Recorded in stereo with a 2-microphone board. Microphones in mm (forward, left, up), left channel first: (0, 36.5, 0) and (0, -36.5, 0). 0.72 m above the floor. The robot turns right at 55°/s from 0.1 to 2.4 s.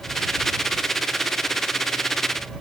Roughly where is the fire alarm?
No fire alarm in this recording.